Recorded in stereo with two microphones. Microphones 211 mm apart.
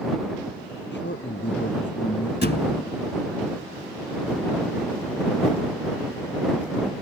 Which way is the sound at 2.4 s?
50° left (ahead or behind).